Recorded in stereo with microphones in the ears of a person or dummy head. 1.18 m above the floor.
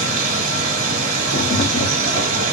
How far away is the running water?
About 1.3 m.